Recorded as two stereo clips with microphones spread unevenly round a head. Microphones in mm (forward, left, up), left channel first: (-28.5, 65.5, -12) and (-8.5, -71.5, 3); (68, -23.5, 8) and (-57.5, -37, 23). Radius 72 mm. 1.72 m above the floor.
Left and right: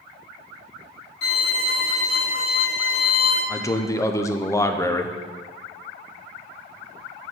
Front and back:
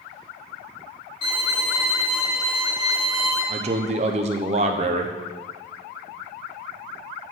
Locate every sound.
1.2 s a violin: 70° left, 2.5 m
3.5 s a man speaking: 170° left, 0.6 m